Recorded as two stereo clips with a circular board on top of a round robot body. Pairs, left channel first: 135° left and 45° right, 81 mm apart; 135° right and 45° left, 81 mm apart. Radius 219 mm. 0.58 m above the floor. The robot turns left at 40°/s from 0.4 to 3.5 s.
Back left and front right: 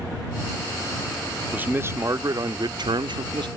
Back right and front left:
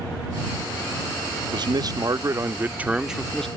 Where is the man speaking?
25° left; by 3.5 s 50° right.